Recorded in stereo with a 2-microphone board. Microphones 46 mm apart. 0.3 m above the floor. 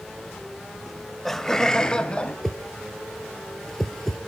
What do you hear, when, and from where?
0.9 s laughter: 5° right (ahead or behind), 1.0 m; by 2.3 s 25° left (ahead or behind), 1.8 m
2.4 s a whoosh: 10° left (ahead or behind), 1.3 m